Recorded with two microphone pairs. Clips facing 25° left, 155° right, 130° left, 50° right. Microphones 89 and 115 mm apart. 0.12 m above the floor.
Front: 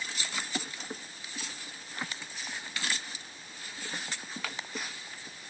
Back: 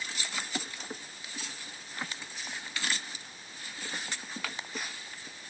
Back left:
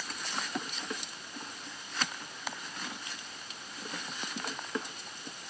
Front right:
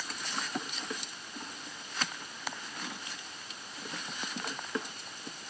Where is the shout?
I don't hear a shout.